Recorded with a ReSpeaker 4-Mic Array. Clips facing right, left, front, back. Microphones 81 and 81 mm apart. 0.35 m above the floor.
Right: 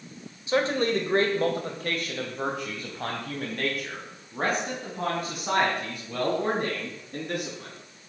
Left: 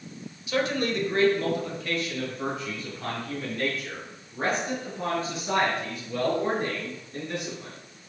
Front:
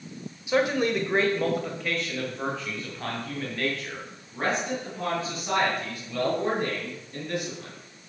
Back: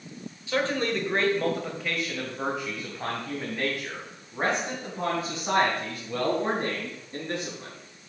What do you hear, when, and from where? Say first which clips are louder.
0.5 s a man speaking: right 2 dB, front 3 dB; 60° right, 1.4 m; by 7.8 s 120° right, 4.5 m